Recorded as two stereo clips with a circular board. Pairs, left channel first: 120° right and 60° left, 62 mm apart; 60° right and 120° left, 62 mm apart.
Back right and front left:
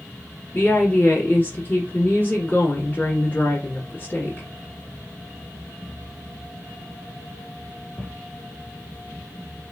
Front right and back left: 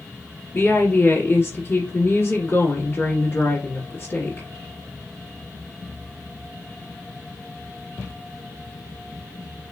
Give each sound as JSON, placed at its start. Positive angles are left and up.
{"t": 0.5, "sound": "a woman speaking", "azimuth_deg": -75, "distance_m": 1.7}